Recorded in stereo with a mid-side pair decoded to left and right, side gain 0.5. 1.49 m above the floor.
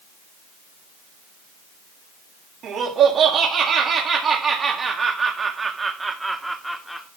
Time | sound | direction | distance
2.6 | laughter | 65° right | 3 m